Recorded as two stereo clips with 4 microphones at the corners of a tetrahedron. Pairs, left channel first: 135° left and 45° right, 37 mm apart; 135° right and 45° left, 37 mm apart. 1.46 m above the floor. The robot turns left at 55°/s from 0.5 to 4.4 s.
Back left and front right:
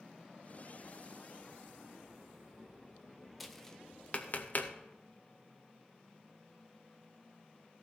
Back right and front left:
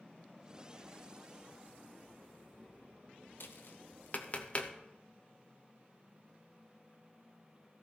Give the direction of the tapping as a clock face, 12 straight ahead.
4 o'clock.